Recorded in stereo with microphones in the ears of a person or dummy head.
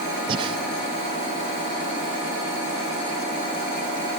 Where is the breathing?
35° right (ahead or behind), 0.8 m.